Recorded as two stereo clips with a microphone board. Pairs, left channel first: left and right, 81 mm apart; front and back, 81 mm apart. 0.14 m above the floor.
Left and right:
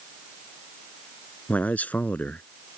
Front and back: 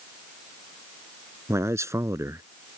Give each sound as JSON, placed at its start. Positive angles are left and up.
{"t": 1.5, "sound": "a man speaking", "azimuth_deg": 150}